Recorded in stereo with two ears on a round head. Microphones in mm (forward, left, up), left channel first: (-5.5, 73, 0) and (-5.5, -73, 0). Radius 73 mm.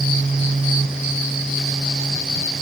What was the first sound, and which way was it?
Only background noise.